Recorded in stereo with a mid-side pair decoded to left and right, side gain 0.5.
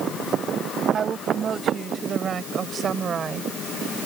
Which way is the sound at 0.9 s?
45° right.